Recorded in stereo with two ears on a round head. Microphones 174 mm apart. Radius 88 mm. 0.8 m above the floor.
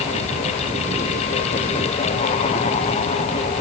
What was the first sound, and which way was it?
Only background noise.